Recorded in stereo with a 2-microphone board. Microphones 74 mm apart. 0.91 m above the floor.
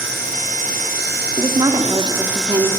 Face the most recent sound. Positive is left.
turn(degrees=-75)  # may be behind; listen again after turning